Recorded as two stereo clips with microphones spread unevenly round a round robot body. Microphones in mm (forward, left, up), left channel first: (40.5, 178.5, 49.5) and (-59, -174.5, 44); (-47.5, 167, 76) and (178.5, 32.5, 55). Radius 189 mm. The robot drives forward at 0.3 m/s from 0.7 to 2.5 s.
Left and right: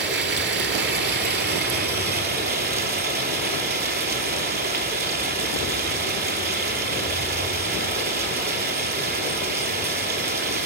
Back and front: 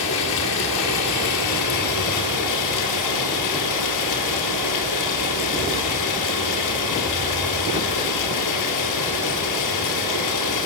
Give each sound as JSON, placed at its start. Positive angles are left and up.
{"t": 0.0, "sound": "running water", "azimuth_deg": -165, "distance_m": 1.4}